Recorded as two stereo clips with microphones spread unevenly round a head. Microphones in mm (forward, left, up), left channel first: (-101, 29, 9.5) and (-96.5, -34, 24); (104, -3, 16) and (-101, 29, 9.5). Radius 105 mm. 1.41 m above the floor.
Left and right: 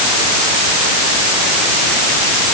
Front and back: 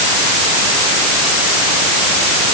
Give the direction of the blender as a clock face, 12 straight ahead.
No blender in this recording.